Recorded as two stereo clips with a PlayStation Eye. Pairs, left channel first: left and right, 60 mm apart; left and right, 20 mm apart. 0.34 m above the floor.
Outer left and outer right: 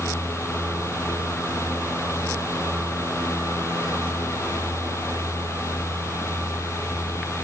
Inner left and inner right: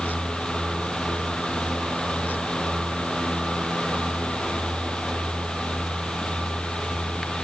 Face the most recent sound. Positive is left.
No sound to turn to.